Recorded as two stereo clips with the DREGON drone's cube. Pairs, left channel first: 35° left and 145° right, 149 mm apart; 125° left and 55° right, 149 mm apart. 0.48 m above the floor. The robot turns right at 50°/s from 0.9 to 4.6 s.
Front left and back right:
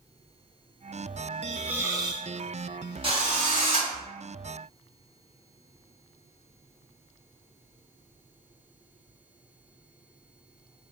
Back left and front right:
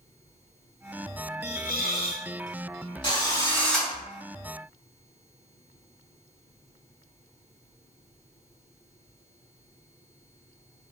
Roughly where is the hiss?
Behind left.